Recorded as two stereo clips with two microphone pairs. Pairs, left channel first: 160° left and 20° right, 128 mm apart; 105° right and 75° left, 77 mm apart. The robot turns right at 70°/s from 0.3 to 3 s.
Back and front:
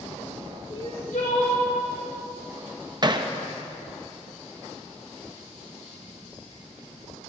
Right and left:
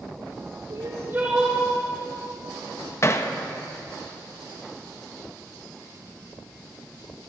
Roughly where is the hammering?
Ahead right.